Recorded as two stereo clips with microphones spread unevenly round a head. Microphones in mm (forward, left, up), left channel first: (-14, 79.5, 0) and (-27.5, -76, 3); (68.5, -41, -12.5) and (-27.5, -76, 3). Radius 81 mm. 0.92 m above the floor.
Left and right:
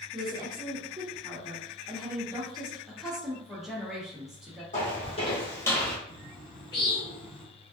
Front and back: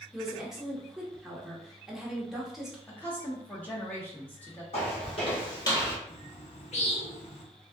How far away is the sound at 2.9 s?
About 0.6 m.